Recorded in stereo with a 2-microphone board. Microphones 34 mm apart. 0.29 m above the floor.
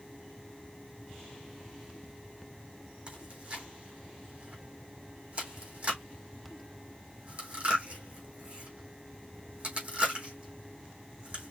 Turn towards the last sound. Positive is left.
turn(degrees=-35)  # may be behind; listen again after turning